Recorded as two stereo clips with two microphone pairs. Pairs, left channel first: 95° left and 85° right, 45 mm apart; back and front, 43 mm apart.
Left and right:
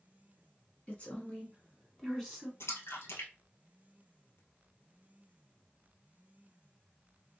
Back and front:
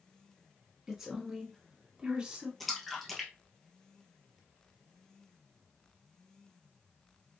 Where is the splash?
90° left, 1.2 m.